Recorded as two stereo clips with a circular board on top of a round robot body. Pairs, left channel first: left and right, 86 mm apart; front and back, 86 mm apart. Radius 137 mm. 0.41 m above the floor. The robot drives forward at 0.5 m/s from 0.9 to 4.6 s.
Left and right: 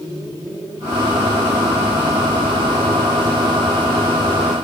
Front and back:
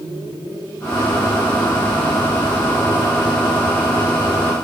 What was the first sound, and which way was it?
Only background noise.